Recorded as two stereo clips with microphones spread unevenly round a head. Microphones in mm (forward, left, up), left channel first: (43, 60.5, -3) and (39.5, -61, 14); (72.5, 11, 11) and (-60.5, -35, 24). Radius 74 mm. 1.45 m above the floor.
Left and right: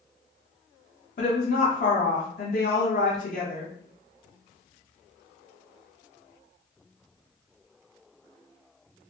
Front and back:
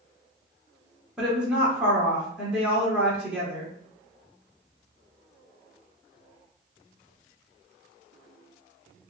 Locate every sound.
1.2 s a woman speaking: 115° left, 0.9 m